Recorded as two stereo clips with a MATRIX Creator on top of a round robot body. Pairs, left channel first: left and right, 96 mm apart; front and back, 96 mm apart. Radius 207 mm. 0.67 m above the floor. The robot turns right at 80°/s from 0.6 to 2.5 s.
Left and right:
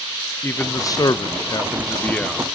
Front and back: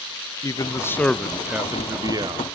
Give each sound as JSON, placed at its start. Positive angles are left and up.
{"t": 0.4, "sound": "a man speaking", "azimuth_deg": 35, "distance_m": 0.9}